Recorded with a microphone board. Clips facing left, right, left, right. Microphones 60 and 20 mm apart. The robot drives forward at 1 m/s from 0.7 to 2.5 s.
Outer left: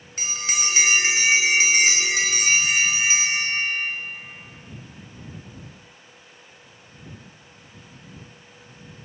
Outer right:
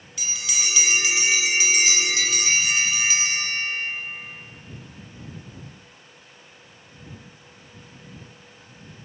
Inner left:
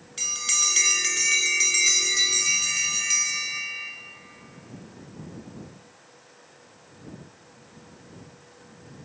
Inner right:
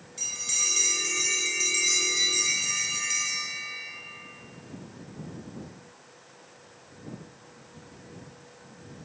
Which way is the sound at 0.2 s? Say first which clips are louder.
Outer left 3 dB, inner left 4 dB; 50° left (ahead or behind).